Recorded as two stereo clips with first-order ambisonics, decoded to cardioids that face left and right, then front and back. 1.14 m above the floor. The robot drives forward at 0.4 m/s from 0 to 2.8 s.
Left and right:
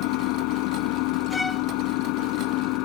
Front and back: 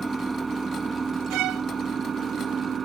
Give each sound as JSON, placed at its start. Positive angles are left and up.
{"t": 0.0, "sound": "an engine running", "azimuth_deg": 100}
{"t": 1.3, "sound": "a violin", "azimuth_deg": 170}